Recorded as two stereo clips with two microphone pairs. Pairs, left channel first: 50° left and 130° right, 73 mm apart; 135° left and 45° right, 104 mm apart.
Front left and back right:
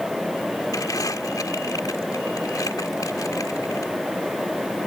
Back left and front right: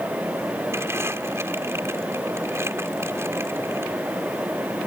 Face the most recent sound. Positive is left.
turn(degrees=15)